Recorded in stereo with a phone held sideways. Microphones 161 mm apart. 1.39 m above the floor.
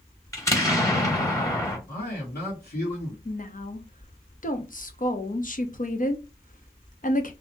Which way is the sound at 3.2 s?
55° left (ahead or behind).